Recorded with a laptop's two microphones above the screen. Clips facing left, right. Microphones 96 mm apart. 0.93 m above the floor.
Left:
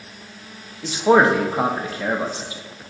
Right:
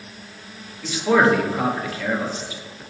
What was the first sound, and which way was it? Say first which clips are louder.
A man speaking: left 2 dB; 30° left (ahead or behind).